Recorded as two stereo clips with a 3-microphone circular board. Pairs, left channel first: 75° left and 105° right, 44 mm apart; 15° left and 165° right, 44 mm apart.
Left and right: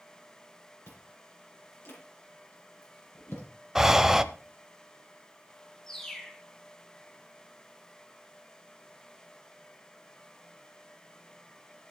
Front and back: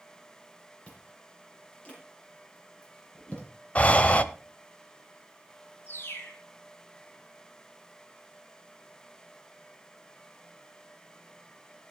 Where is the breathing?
30° right, 0.9 m.